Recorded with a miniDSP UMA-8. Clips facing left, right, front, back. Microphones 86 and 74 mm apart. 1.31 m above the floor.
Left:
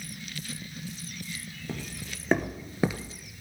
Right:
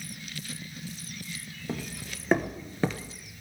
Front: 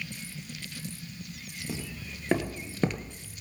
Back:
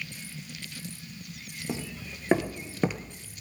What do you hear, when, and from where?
1.7 s footsteps: 160° right, 1.5 m; by 3.2 s 80° left, 1.3 m